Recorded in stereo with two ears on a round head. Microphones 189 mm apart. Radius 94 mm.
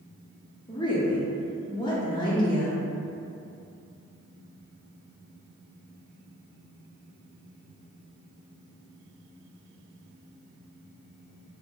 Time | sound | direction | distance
0.7 | a woman speaking | 20° left (ahead or behind) | 0.7 m